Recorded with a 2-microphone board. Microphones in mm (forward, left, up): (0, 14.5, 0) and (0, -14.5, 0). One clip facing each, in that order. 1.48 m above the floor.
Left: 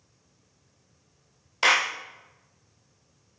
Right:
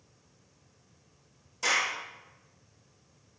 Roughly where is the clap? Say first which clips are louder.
Left 6 dB; left.